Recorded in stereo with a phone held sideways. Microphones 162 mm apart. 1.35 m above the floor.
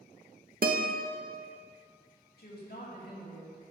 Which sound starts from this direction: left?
A woman speaking, at 2.4 s.